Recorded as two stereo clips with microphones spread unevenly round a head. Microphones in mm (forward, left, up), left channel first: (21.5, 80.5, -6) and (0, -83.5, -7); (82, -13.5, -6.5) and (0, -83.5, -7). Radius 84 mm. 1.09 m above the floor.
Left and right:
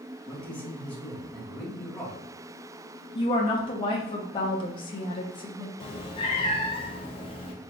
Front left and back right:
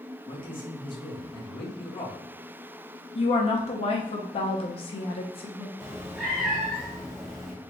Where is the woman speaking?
25° left, 0.8 m.